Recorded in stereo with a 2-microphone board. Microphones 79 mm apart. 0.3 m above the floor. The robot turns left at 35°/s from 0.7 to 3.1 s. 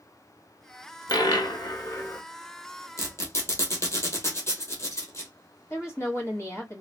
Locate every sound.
1.1 s a dropped coin: 75° left, 0.6 m; by 2.2 s 35° left, 0.6 m
3.0 s a squeak: 40° left (ahead or behind), 1.5 m; by 5.3 s 35° left (ahead or behind), 1.5 m
5.7 s a woman speaking: 40° left (ahead or behind), 1.3 m